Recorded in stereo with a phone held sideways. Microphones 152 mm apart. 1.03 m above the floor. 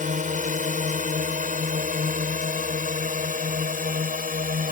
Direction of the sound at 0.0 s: 55° right (ahead or behind).